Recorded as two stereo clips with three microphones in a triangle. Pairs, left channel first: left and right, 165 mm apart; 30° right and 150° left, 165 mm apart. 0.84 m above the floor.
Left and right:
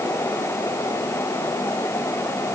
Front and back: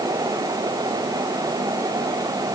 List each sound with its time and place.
Only background noise.